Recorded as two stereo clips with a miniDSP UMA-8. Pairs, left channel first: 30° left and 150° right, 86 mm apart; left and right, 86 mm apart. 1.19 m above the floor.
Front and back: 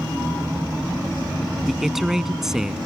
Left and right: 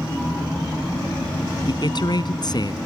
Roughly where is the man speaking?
Behind left.